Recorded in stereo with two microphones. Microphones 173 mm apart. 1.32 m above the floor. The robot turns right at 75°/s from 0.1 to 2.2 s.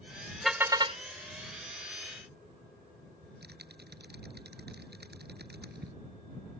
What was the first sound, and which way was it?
A car horn, straight behind.